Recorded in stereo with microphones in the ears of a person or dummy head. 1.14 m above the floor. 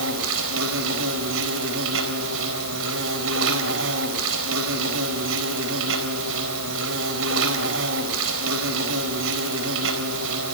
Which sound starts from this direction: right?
An insect, at 0.0 s.